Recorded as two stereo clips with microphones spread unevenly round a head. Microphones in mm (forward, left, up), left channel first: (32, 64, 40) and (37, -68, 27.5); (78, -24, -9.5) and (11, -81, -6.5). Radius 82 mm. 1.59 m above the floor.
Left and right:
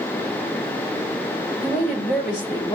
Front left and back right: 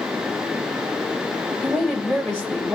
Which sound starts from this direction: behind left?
A woman speaking, at 1.6 s.